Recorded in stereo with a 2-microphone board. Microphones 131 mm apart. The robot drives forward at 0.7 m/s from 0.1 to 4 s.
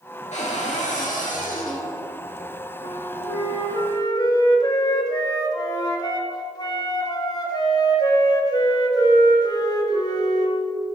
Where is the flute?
45° left (ahead or behind), 0.8 m; by 10.6 s 30° left (ahead or behind), 1.2 m.